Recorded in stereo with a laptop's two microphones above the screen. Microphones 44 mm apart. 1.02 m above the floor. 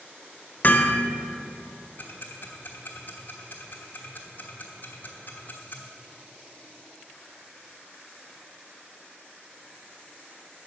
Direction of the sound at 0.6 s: 40° left (ahead or behind).